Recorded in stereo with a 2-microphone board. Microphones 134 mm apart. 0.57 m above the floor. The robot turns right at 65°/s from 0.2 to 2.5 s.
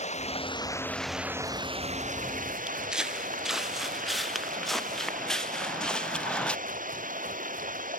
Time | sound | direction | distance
0.0 | running water | 125° left | ?
2.7 | footsteps | 5° right (ahead or behind) | ?